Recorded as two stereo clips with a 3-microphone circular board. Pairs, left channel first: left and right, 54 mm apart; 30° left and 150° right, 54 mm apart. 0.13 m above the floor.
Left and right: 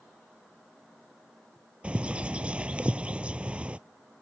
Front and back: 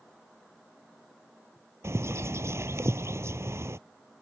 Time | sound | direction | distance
1.8 | a bird | 155° right | ?